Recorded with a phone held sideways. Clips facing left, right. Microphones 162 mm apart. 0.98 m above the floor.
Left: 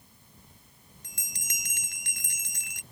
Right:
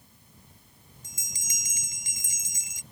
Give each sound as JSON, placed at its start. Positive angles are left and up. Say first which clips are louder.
{"t": 1.0, "sound": "a bell", "louder": "even", "side_deg": 65}